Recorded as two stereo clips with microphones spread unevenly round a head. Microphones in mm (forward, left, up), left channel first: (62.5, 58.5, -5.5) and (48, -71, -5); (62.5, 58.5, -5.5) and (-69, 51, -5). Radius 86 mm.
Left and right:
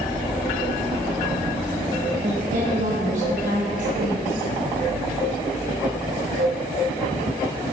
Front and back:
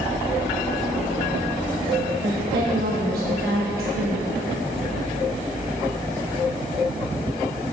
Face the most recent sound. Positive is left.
turn(degrees=-145)